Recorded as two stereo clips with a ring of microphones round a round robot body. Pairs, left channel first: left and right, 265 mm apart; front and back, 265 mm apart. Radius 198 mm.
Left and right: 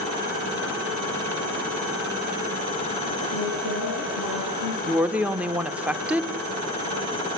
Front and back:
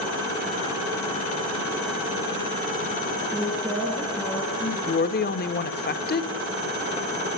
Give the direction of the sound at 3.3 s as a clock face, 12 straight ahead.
9 o'clock.